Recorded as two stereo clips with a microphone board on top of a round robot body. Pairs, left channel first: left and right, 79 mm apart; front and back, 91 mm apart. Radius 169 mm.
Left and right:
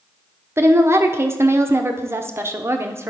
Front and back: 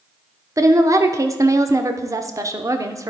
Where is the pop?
No pop in this recording.